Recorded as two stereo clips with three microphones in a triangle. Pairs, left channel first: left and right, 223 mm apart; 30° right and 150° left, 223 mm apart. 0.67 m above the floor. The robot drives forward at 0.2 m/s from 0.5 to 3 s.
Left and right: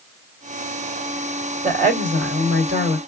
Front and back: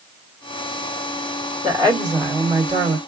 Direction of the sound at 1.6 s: 140° right.